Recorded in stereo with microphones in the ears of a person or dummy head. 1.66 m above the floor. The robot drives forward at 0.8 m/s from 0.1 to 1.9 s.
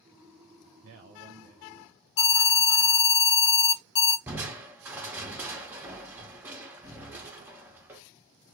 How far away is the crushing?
About 0.6 m.